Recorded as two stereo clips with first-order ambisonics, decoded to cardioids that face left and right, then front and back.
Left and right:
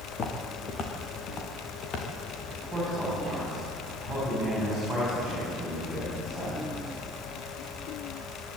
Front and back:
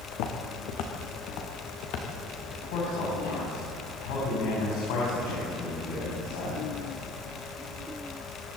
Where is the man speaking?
Straight ahead, 9 m.